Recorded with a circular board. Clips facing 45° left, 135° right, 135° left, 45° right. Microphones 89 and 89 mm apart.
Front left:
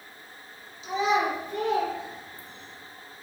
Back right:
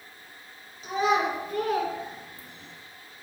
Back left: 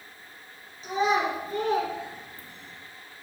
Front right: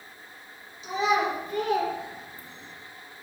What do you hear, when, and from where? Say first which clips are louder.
0.8 s a child speaking: even, even; straight behind, 3 m; by 2.8 s 145° right, 1.6 m